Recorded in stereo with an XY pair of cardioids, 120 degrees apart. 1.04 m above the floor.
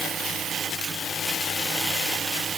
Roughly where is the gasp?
No gasp in this recording.